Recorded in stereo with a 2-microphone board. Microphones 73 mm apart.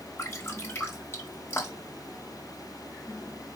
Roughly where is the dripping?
Left.